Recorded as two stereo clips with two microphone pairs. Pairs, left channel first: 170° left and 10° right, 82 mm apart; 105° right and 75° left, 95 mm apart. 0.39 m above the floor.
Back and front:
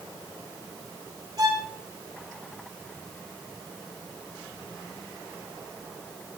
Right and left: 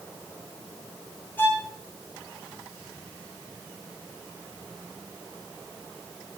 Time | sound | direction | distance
1.4 | a violin | 40° right | 3 m